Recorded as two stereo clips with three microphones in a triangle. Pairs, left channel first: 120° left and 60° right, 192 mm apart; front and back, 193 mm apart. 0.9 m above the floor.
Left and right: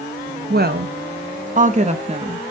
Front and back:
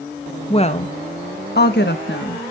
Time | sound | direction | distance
0.5 | a woman speaking | 55° right | 1.0 m